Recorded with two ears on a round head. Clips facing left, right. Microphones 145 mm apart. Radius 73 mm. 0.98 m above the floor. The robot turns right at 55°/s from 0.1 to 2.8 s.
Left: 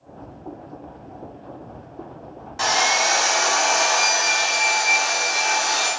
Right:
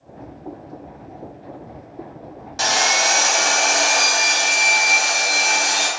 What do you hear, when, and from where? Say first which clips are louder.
2.6 s sawing: even; 45° right (ahead or behind), 0.9 m; by 5.9 s 55° right (ahead or behind), 0.9 m